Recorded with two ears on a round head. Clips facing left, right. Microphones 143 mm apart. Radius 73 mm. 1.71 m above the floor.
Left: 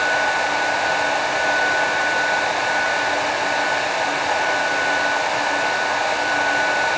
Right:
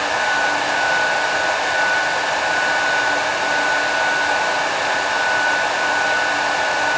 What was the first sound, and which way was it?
Only background noise.